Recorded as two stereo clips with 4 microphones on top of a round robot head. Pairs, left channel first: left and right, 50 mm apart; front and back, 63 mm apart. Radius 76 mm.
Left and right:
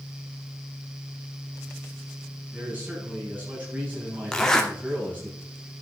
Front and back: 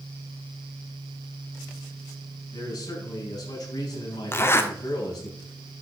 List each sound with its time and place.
2.5 s a man speaking: 25° right, 5 m
4.3 s a zipper: 20° left, 1.6 m